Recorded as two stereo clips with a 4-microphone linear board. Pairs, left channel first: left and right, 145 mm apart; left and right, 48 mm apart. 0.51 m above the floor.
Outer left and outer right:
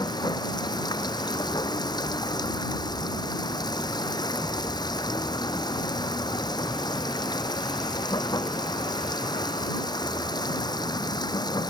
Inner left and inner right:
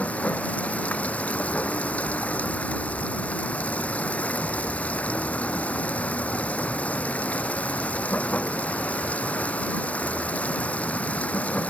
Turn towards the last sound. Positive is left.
turn(degrees=30)  # may be behind; listen again after turning